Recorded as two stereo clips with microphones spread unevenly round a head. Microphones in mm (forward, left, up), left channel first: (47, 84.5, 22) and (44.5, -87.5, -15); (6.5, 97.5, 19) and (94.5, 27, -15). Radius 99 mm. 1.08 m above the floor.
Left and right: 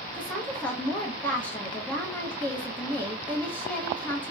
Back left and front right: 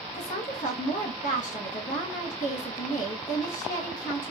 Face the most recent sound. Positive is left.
turn(degrees=180)